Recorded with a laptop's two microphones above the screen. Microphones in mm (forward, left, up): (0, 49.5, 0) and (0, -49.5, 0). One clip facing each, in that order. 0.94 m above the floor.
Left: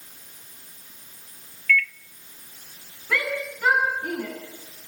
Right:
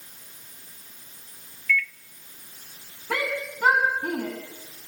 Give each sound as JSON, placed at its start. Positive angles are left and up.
{"t": 1.7, "sound": "a microwave", "side_deg": -10, "distance_m": 0.7}
{"t": 3.1, "sound": "a shout", "side_deg": -40, "distance_m": 7.5}